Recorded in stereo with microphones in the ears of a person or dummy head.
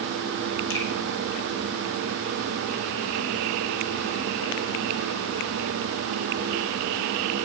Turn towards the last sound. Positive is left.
turn(degrees=70)  # may be behind; listen again after turning